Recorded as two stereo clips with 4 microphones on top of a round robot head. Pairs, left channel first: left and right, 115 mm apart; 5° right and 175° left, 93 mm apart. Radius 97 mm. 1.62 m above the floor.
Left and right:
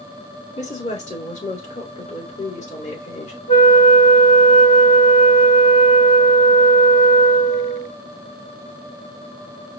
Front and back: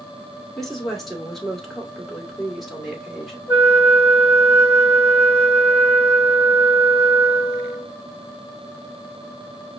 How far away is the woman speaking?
About 2.5 m.